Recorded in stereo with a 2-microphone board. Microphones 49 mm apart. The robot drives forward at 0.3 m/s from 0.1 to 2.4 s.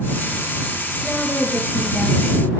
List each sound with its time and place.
1.0 s a woman speaking: 35° left (ahead or behind), 3.5 m